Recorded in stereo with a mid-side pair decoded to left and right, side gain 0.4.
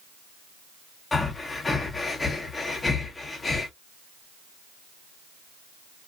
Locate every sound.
1.1 s breathing: 30° left, 1.0 m